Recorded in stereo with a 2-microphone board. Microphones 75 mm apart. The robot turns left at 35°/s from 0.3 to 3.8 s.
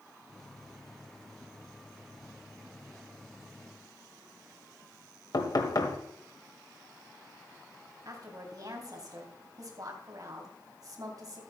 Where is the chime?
I don't hear a chime.